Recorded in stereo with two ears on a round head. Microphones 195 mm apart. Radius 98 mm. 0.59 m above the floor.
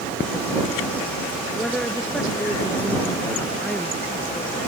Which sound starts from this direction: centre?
A woman speaking, at 1.6 s.